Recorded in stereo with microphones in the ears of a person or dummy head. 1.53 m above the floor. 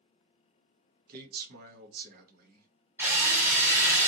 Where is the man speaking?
50° right (ahead or behind), 1.1 m.